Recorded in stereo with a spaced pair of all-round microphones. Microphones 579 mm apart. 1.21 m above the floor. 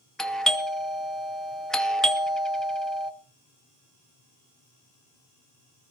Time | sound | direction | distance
0.2 | a doorbell | centre (ahead or behind) | 0.6 m